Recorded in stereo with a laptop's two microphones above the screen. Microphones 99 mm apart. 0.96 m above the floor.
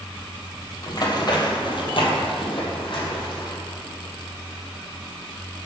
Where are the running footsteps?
40° left (ahead or behind), 1.6 m; by 3.5 s 50° left (ahead or behind), 2 m.